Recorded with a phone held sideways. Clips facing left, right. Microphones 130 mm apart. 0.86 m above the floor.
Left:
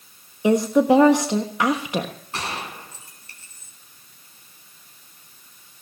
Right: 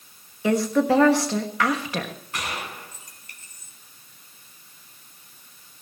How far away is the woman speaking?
About 1.3 m.